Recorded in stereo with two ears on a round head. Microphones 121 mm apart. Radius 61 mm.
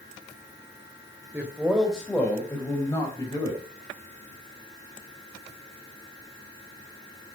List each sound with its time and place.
1.3 s a man speaking: 10° right (ahead or behind), 3 m; by 3.6 s 30° left (ahead or behind), 5 m